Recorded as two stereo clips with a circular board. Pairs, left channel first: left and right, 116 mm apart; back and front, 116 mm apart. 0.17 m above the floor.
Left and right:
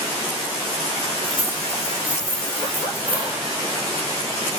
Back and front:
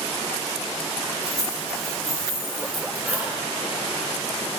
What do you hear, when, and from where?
1.2 s keys jangling: 55° right, 2 m; by 3.4 s 80° right, 1.5 m